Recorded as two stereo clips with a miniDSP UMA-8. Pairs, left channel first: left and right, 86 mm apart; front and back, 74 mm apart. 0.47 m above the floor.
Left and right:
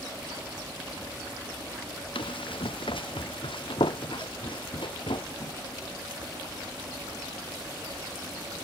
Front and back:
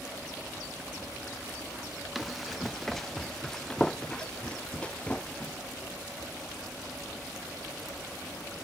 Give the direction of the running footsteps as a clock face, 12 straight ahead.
9 o'clock.